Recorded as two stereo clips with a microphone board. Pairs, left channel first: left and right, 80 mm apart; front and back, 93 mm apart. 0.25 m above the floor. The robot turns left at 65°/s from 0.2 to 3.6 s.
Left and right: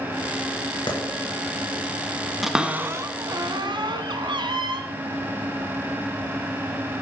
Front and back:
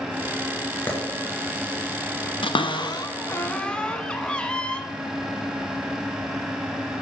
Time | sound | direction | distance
0.9 | a clap | 70° left | 3 m
2.4 | a cupboard door | straight ahead | 1.1 m